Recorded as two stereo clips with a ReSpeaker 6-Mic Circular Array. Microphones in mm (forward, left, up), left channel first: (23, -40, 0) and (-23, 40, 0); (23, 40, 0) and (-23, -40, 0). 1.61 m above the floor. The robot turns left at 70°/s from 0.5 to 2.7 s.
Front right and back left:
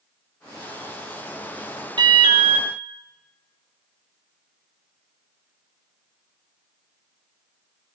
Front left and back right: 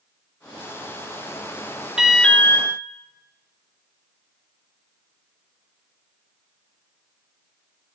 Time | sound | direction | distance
2.0 | an alarm | 160° left | 2 m